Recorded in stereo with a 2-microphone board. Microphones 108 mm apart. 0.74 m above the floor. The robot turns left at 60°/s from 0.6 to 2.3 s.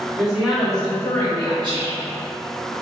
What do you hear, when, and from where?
0.2 s a woman speaking: 175° right, 1.4 m; by 1.5 s 130° left, 1.4 m
1.6 s whispering: 25° right (ahead or behind), 0.8 m; by 2.0 s 10° right (ahead or behind), 0.8 m